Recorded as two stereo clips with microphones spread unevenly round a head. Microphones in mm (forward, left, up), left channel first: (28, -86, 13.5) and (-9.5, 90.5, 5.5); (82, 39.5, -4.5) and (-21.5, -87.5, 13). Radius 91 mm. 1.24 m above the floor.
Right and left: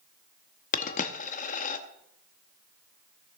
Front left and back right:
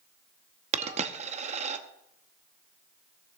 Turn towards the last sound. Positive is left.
turn(degrees=-105)